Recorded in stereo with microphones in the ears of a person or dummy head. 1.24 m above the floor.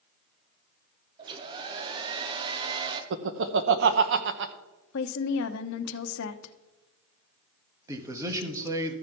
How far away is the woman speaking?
About 0.8 m.